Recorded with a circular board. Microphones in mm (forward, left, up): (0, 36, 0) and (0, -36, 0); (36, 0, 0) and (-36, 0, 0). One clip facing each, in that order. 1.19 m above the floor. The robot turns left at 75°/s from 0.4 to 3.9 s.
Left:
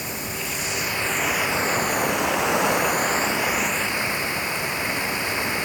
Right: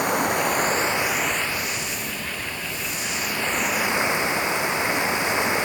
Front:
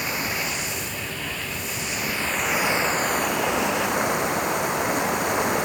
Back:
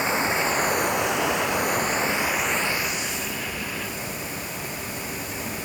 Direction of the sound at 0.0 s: 115° right.